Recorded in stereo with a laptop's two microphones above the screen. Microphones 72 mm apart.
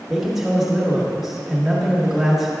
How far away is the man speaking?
About 1.4 m.